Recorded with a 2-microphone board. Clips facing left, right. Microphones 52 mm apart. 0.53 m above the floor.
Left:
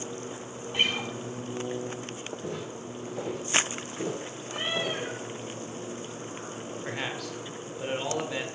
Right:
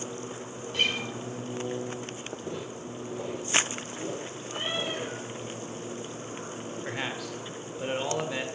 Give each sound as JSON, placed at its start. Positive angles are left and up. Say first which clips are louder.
{"t": 0.7, "sound": "a guitar", "louder": "left 1 dB", "side_deg": 20, "distance_m": 1.7}
{"t": 2.4, "sound": "footsteps", "louder": "left 1 dB", "side_deg": 60, "distance_m": 5.5}
{"t": 4.5, "sound": "a cat meowing", "louder": "left 2 dB", "side_deg": 65, "distance_m": 5.5}
{"t": 6.8, "sound": "a man speaking", "louder": "even", "side_deg": -5, "distance_m": 1.4}